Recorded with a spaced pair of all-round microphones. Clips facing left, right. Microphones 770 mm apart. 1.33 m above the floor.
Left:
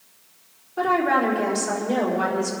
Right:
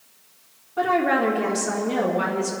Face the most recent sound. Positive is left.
turn(degrees=-75)  # may be behind; listen again after turning